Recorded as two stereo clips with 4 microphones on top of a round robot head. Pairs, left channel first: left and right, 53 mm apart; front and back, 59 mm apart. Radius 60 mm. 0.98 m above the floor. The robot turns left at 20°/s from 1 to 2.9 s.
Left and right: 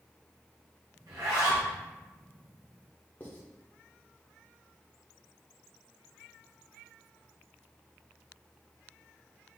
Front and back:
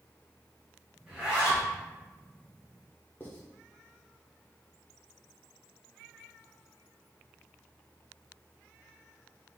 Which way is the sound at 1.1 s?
100° right.